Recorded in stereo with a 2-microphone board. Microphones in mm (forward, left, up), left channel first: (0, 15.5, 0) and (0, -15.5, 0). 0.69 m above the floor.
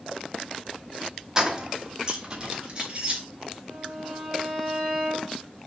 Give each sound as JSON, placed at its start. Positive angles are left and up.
{"t": 1.4, "sound": "keys jangling", "side_deg": -20, "distance_m": 0.8}
{"t": 3.7, "sound": "a violin", "side_deg": -5, "distance_m": 3.0}